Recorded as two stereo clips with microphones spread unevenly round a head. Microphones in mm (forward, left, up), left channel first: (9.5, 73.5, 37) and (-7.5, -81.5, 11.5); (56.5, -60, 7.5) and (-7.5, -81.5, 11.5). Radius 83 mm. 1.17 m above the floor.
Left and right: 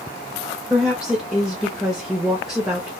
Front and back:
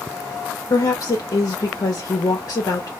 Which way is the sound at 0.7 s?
10° right.